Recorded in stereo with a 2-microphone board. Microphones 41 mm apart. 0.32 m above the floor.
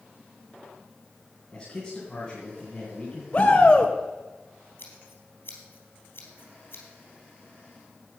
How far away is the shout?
About 1.1 m.